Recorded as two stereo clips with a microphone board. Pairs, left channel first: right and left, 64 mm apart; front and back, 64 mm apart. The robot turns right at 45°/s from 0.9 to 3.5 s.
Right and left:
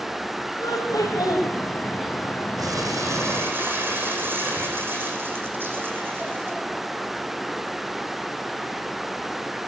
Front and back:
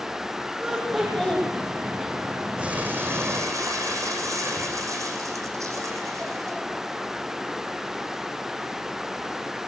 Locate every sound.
0.6 s laughter: 95° right, 6.5 m; by 1.5 s 70° right, 6.5 m
2.6 s crumpling: 105° left, 5 m; by 6.6 s 145° left, 5 m